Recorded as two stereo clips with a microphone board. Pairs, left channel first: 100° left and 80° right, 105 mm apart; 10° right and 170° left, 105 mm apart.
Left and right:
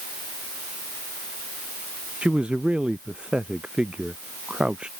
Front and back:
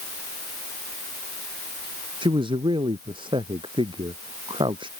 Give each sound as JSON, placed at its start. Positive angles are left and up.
{"t": 2.2, "sound": "a man speaking", "azimuth_deg": -160}